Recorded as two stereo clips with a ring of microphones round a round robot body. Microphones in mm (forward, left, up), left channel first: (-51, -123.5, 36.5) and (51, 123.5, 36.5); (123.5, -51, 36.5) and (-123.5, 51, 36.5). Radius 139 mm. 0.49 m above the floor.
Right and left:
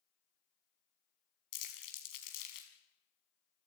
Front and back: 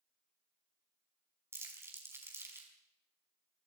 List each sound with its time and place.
1.5 s crumpling: 120° right, 5 m